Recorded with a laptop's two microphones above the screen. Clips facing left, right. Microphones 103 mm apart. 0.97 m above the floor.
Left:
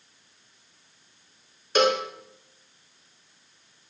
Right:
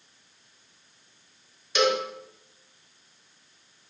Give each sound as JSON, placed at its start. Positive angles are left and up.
{"t": 1.8, "sound": "a cowbell", "side_deg": 45, "distance_m": 0.7}